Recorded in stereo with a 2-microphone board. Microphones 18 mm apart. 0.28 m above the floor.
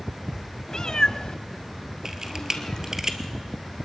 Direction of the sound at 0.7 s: 35° left (ahead or behind).